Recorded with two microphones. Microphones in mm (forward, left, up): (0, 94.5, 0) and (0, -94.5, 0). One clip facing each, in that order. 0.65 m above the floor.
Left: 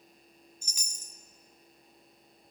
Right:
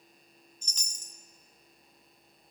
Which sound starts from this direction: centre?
A chime, at 0.6 s.